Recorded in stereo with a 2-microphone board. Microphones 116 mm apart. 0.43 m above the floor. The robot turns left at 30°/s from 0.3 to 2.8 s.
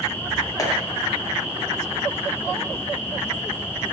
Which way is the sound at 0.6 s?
30° left (ahead or behind).